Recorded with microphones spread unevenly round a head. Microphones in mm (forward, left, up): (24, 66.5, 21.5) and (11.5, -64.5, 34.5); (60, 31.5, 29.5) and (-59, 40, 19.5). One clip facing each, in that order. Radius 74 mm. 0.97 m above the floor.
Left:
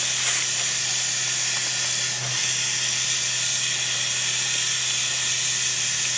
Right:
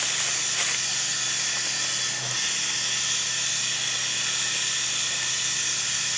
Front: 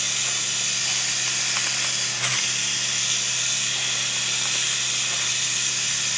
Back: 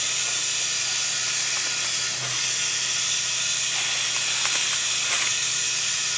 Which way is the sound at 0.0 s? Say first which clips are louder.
Left 1 dB, front 1 dB; 25° left.